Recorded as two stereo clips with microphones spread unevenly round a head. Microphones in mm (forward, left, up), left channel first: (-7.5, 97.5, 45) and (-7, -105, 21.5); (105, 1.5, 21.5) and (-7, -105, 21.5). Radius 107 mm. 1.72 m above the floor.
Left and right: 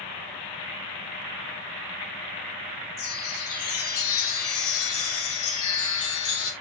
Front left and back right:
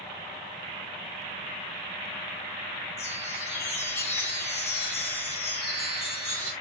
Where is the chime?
110° left, 1.6 m.